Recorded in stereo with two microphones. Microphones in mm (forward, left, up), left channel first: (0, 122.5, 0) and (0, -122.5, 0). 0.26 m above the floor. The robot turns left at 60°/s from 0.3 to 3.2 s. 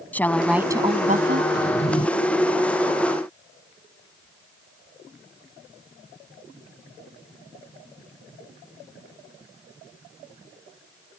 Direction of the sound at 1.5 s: 40° left.